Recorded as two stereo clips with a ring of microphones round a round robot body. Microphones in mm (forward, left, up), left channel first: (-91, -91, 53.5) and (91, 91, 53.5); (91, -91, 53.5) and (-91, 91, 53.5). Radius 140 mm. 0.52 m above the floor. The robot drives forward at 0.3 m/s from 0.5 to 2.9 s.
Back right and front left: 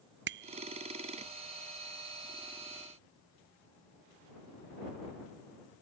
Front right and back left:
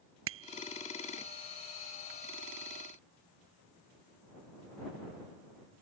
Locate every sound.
0.3 s a bicycle bell: 95° left